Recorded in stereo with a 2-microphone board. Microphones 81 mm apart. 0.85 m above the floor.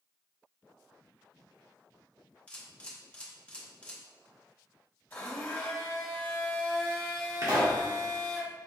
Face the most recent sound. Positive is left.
turn(degrees=-45)  # may be behind; listen again after turning